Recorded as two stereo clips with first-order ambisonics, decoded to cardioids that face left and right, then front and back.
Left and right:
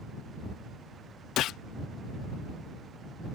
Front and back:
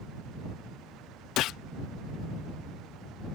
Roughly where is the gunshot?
Ahead left.